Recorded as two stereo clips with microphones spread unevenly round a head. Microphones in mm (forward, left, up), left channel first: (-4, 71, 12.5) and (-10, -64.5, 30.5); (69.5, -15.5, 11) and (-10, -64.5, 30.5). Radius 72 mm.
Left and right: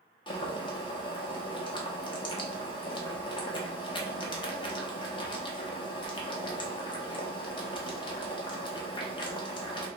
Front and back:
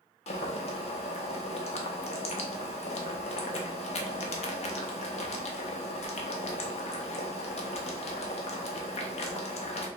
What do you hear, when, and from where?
0.3 s boiling: 25° left, 0.7 m